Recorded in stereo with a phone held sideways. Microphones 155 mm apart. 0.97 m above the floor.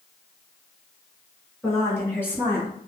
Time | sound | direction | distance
1.6 | a woman speaking | 15° left (ahead or behind) | 1.7 m